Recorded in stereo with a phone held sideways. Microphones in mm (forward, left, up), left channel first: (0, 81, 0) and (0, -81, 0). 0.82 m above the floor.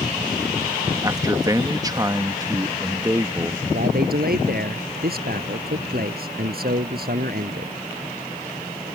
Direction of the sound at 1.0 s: 25° right (ahead or behind).